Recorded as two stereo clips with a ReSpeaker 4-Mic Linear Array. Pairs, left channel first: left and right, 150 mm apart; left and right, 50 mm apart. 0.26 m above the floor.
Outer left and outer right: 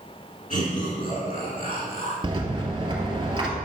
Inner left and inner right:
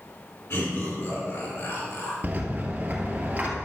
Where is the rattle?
35° right (ahead or behind), 1.8 m.